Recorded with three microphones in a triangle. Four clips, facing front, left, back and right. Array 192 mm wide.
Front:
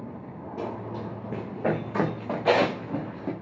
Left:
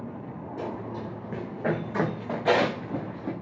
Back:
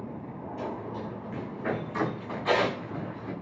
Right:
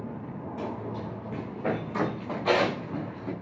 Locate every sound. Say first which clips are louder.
0.6 s running footsteps: left 1 dB, front 2 dB; 10° left, 6 m; by 3.3 s 25° left, 7 m